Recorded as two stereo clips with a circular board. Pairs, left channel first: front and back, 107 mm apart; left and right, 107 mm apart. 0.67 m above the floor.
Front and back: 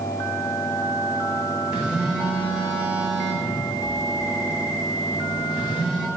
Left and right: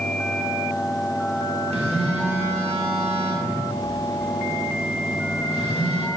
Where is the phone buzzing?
100° right, 4 m.